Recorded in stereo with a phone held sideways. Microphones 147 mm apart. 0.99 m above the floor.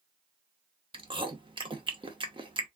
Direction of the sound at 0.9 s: 35° right (ahead or behind).